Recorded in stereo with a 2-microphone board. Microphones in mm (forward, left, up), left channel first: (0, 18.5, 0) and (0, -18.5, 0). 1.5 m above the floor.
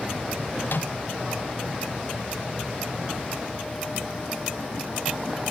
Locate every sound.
0.7 s a microwave: 65° left (ahead or behind), 0.6 m